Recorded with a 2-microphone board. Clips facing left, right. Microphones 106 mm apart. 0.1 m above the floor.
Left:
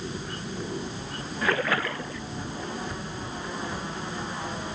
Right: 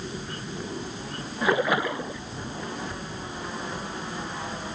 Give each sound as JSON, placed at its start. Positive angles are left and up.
{"t": 1.4, "sound": "a splash", "side_deg": -15}